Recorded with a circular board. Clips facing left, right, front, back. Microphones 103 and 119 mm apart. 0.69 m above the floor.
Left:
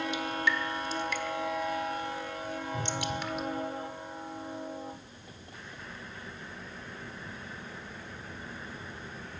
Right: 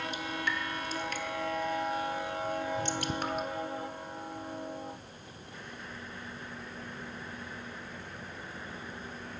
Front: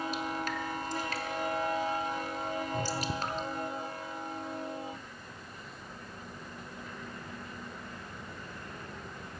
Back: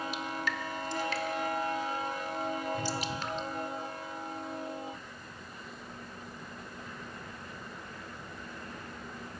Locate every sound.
0.1 s dripping: 45° right, 1.2 m
2.7 s a whoosh: 50° left, 6.5 m